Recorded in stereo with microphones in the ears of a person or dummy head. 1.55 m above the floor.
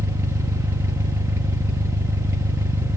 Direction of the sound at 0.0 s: 15° right (ahead or behind).